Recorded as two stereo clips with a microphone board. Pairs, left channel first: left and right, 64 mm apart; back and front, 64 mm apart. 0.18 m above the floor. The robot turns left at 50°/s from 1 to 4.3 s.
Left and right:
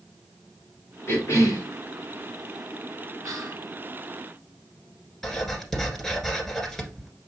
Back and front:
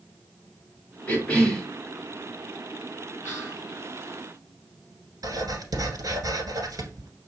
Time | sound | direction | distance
1.1 | a cough | 120° left | 1.7 m
3.2 | whispering | 55° right | 3.5 m
5.2 | writing | 5° left | 1.5 m